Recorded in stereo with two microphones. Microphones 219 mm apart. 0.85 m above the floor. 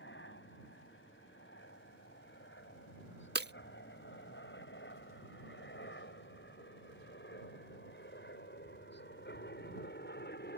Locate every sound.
0.0 s a helicopter: 60° left (ahead or behind); by 10.6 s 50° left (ahead or behind)
3.4 s breaking glass: 50° right (ahead or behind)